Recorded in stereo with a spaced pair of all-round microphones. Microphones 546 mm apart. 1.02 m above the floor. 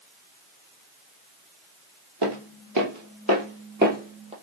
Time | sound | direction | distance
2.2 | footsteps | 50° right (ahead or behind) | 1.6 m